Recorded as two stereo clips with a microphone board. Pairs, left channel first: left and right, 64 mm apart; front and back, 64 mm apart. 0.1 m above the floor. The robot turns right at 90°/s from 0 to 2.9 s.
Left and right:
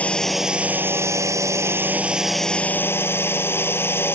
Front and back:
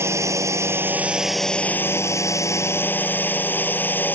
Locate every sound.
0.0 s a drone: 150° left; by 4.2 s 50° left